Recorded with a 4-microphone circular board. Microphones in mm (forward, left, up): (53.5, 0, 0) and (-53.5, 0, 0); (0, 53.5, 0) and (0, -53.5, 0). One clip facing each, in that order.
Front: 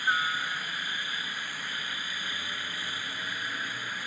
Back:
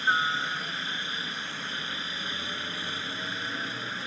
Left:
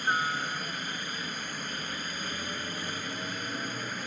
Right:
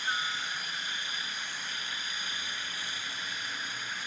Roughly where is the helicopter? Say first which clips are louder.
Back 2 dB, left 6 dB; behind left.